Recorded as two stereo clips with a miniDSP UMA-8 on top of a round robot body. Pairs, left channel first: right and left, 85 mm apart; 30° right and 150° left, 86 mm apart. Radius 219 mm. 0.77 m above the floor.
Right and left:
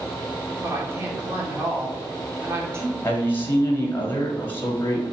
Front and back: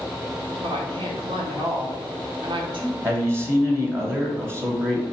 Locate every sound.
0.6 s a woman speaking: 150° left, 2.0 m
3.0 s a man speaking: 155° right, 1.5 m